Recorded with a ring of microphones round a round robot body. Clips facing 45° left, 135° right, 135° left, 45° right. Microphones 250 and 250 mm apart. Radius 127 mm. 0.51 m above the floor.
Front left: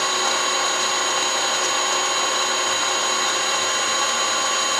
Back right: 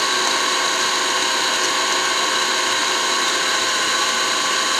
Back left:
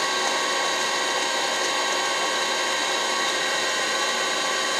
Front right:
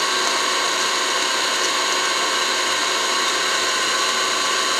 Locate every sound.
0.0 s an engine running: 105° right, 1.1 m